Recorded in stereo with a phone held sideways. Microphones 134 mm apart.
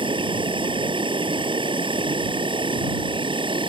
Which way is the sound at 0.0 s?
35° right (ahead or behind).